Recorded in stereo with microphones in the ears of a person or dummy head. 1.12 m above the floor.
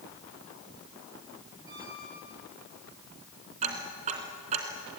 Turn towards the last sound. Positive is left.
turn(degrees=-40)  # may be behind; listen again after turning